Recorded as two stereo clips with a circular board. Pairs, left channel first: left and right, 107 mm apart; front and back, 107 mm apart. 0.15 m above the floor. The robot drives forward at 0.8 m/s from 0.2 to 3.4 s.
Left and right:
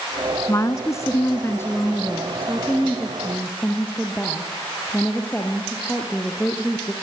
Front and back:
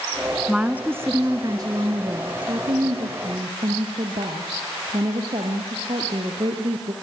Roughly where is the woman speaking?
Left.